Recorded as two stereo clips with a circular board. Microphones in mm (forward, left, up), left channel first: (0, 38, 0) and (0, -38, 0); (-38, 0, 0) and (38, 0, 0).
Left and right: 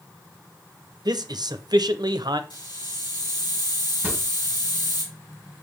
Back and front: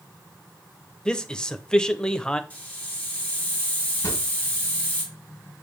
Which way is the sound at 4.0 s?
155° right.